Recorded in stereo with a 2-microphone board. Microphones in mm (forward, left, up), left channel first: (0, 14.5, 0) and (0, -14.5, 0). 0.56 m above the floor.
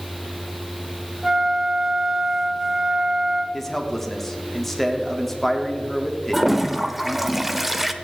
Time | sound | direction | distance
1.2 | a flute | 10° right (ahead or behind) | 1.3 m
3.5 | a man speaking | 10° left (ahead or behind) | 1.2 m
6.3 | a toilet flushing | 5° right (ahead or behind) | 0.6 m